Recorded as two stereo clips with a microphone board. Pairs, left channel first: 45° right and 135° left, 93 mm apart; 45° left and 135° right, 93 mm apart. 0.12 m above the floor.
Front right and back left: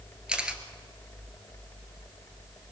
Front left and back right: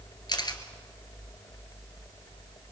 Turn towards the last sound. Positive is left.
turn(degrees=60)